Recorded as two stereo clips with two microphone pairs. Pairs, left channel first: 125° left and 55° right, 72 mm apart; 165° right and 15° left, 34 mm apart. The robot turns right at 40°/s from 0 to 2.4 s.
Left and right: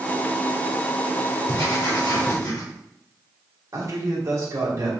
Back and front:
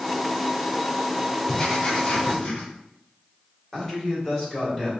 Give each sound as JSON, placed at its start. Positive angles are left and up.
{"t": 1.5, "sound": "writing", "azimuth_deg": 110, "distance_m": 1.8}
{"t": 3.7, "sound": "a man speaking", "azimuth_deg": -90, "distance_m": 2.0}